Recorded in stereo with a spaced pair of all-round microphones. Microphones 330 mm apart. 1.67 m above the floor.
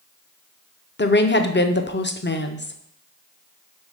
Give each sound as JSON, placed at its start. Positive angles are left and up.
{"t": 1.0, "sound": "a woman speaking", "side_deg": 35, "distance_m": 0.6}